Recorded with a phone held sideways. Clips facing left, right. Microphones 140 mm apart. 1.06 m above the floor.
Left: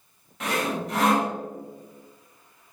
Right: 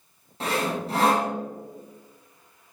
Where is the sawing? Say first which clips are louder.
Right 1 dB; 30° right (ahead or behind), 0.7 m.